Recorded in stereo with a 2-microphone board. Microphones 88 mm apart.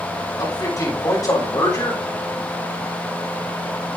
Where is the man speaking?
40° left (ahead or behind), 6.5 m.